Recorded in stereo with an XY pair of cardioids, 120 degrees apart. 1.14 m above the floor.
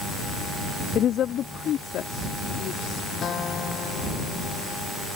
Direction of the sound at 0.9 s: 60° left.